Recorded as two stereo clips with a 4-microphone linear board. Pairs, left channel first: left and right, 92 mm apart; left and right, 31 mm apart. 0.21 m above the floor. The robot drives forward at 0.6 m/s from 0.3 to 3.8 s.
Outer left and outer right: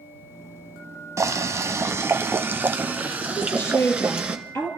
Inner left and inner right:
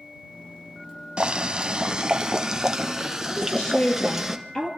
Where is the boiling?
35° right (ahead or behind), 0.8 m; by 4.4 s 15° right (ahead or behind), 1.8 m.